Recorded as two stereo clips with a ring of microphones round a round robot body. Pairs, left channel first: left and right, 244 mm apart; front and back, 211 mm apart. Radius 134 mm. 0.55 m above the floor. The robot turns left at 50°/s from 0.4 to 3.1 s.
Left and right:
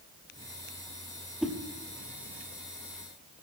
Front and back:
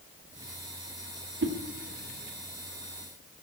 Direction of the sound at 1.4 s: 175° right.